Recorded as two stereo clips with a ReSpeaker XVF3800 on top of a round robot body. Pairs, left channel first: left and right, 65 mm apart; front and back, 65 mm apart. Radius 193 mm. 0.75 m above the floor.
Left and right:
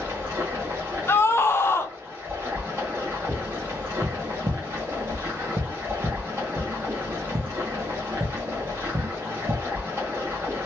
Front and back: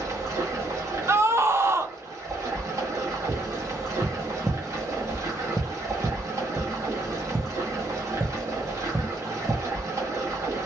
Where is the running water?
140° right, 1.3 m.